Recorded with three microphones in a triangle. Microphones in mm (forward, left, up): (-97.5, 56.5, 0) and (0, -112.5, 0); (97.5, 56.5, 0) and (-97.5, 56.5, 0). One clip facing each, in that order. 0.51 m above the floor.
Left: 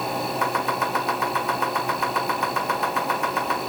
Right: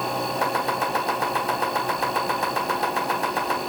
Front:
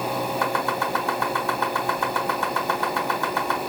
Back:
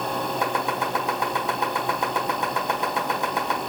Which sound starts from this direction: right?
Chopping, at 0.4 s.